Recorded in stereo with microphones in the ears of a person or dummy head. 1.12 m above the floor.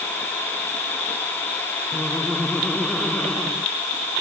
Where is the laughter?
5° left (ahead or behind).